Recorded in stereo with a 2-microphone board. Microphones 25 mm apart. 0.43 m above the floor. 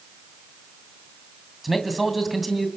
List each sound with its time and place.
1.6 s a man speaking: 5° right (ahead or behind), 2.5 m